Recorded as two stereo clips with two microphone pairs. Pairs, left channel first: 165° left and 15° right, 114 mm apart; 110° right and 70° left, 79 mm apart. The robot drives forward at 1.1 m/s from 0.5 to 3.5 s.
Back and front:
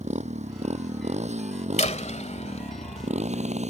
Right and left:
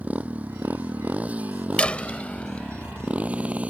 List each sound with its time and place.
0.0 s a motorcycle: straight ahead; by 3.7 s 5° right
1.8 s a door slam: 175° left